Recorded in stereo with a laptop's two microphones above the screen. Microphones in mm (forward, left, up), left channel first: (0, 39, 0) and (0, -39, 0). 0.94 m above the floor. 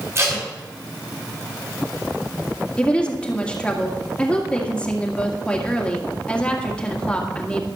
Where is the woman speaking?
15° left (ahead or behind), 1.9 m.